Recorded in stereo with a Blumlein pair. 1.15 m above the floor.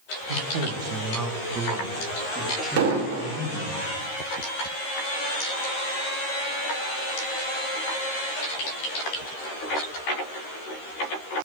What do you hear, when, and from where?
0.3 s a man speaking: 60° right, 0.8 m; by 3.8 s straight ahead, 2.5 m
2.8 s an explosion: 45° right, 1.6 m